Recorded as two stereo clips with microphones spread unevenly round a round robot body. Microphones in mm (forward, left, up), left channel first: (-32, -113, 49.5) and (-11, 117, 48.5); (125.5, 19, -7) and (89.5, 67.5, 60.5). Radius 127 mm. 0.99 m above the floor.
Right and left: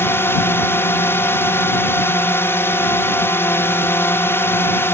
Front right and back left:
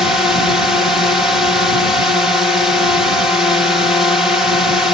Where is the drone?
15° right.